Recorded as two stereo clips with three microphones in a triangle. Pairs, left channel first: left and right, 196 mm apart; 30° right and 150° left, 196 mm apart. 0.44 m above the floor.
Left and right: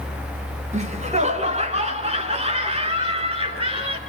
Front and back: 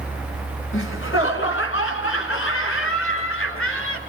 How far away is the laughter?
About 4 m.